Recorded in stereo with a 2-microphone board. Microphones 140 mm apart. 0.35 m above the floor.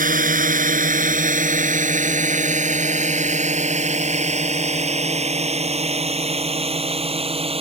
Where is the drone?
75° right (ahead or behind); by 7.6 s 45° right (ahead or behind).